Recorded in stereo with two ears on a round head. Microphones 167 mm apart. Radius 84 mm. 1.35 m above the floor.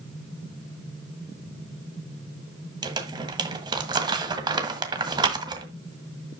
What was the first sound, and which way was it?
Crumpling, 25° right (ahead or behind).